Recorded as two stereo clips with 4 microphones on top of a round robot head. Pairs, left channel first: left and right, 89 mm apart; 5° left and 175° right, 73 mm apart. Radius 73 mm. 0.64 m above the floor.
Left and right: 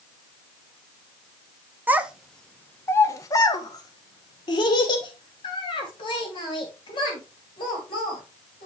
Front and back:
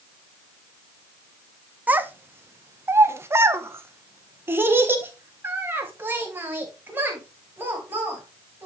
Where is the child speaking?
135° right, 0.5 m; by 8.7 s 120° left, 4 m.